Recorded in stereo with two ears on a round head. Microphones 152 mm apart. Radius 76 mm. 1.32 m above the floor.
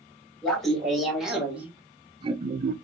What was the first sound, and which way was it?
Laughter, 5° left (ahead or behind).